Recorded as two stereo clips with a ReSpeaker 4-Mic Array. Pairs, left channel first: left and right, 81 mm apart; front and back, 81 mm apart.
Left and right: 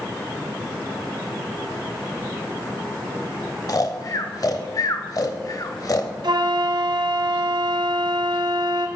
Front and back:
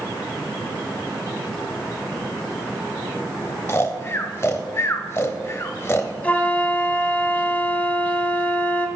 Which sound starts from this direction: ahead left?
Snoring, at 3.7 s.